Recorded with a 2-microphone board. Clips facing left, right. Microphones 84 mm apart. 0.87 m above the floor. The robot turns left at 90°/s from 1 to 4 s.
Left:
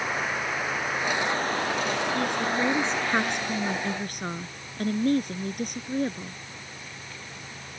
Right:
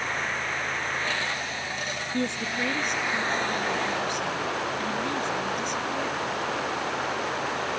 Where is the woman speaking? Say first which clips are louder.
Left 3 dB; 145° right; by 6.4 s 50° left.